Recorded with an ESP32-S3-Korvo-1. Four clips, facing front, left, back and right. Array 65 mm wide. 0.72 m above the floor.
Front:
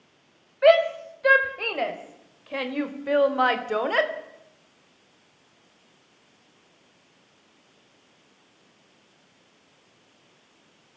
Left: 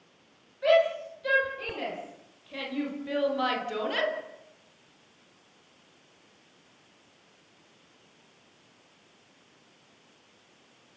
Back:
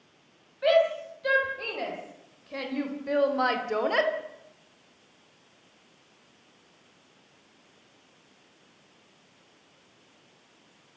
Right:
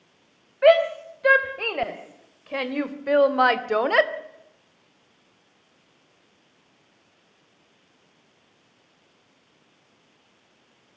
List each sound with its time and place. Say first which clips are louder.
0.6 s a shout: right 6 dB, front 5 dB; 55° right, 4 m; by 4.1 s 85° right, 2 m